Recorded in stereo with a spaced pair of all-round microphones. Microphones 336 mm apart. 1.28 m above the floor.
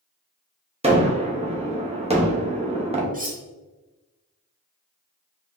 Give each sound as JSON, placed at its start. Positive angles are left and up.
{"t": 0.8, "sound": "a gunshot", "side_deg": -20, "distance_m": 0.8}
{"t": 3.1, "sound": "cutlery clinking", "side_deg": -25, "distance_m": 0.7}